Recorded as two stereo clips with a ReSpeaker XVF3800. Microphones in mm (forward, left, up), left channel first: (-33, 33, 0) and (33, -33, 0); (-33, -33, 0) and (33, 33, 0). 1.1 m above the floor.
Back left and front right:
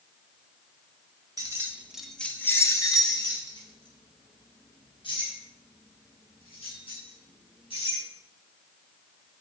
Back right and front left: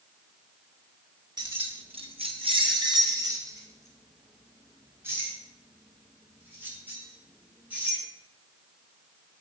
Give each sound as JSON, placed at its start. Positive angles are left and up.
{"t": 1.4, "sound": "keys jangling", "azimuth_deg": 10, "distance_m": 1.6}